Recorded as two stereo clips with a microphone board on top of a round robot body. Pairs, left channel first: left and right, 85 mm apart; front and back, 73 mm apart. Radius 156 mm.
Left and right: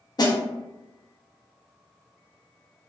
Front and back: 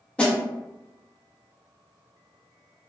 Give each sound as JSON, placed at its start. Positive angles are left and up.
{"t": 0.2, "sound": "a snare drum", "azimuth_deg": 70, "distance_m": 0.9}